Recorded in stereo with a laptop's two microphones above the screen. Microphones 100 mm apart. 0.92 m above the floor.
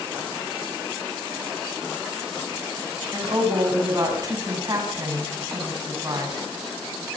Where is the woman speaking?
35° right (ahead or behind), 7 m.